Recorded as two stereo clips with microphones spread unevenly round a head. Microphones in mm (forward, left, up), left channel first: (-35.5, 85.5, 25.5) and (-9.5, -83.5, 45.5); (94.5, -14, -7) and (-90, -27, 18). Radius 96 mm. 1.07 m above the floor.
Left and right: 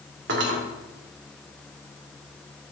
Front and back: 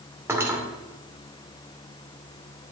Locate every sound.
0.3 s cutlery clinking: 100° right, 2 m